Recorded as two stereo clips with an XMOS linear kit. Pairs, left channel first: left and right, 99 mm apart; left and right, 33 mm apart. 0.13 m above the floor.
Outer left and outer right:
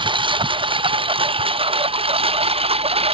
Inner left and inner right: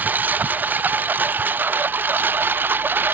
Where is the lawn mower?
60° right (ahead or behind); by 3.1 s 85° right.